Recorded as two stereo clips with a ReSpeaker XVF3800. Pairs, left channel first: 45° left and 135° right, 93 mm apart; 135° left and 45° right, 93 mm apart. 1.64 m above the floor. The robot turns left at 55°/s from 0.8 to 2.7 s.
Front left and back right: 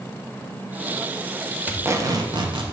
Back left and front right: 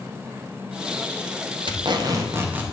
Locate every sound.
1.7 s tape being pulled: 65° right, 0.8 m; by 2.7 s 120° right, 0.8 m